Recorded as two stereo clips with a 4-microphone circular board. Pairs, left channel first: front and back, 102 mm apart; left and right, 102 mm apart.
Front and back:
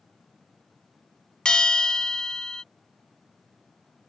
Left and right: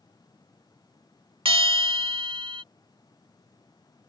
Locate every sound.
1.4 s a bell: 80° right